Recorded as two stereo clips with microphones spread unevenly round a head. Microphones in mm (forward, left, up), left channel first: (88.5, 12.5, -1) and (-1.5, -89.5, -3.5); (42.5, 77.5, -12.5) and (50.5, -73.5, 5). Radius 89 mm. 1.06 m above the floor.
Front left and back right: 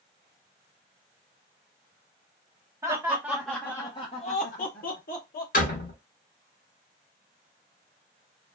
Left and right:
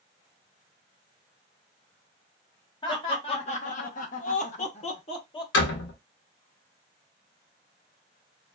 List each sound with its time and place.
2.8 s laughter: 155° left, 1.1 m; by 5.4 s 40° left, 1.2 m
5.5 s a door slam: 95° left, 0.9 m